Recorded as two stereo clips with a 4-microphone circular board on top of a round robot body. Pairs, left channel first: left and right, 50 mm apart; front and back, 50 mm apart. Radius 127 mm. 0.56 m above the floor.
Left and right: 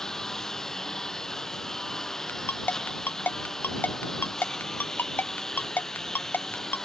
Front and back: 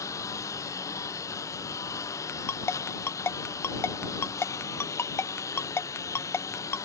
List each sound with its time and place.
0.0 s a lawn mower: 10° left
2.3 s a ringtone: 35° left